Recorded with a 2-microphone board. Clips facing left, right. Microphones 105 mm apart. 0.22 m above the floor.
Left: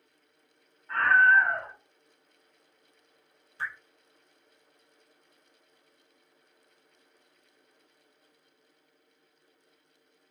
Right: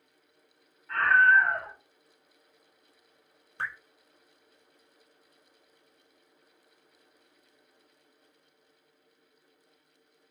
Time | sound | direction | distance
0.9 | a scream | 10° left (ahead or behind) | 1.1 m
3.6 | dripping | 70° right (ahead or behind) | 1.1 m